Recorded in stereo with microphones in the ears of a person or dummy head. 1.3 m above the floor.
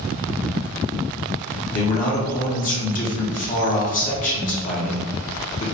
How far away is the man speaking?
About 0.7 m.